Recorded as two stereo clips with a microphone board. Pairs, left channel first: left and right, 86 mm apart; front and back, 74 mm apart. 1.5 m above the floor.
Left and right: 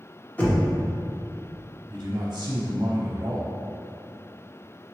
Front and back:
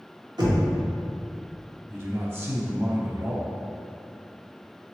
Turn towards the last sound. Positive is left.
turn(degrees=-130)